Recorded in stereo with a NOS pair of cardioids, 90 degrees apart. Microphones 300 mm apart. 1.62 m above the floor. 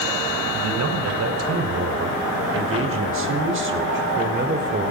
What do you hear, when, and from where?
0.5 s a man speaking: 55° right, 5.5 m; by 4.9 s 30° right, 5 m